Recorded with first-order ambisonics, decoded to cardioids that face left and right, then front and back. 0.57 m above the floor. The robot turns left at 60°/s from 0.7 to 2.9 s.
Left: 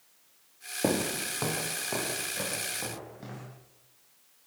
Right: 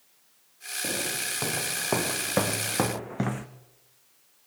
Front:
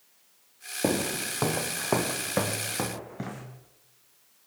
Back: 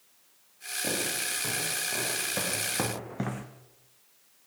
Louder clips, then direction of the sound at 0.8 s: Left 1 dB, front 3 dB; 40° left.